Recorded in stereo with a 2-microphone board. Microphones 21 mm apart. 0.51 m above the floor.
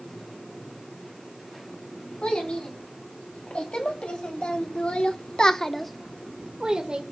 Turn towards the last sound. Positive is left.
turn(degrees=-45)  # may be behind; listen again after turning